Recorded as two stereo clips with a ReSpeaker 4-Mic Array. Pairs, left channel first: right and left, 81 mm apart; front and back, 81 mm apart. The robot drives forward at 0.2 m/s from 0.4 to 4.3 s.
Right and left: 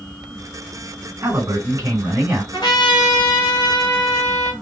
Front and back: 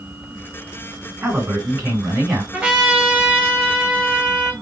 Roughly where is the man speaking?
Behind left.